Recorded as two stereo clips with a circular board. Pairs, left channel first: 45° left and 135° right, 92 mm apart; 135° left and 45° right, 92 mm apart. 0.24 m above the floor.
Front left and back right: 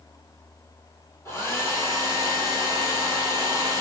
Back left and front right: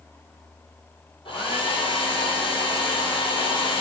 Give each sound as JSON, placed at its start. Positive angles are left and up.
{"t": 1.2, "sound": "a hair dryer", "azimuth_deg": 110, "distance_m": 1.6}